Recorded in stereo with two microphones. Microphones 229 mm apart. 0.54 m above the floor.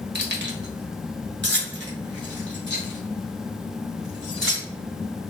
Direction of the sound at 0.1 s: 50° right (ahead or behind).